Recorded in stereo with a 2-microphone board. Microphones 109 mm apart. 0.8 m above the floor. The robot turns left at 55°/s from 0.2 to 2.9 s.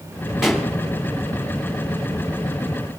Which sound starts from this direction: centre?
A pop, at 0.4 s.